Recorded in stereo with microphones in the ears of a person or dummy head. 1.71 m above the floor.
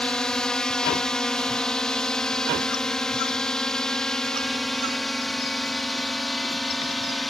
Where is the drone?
5° left (ahead or behind).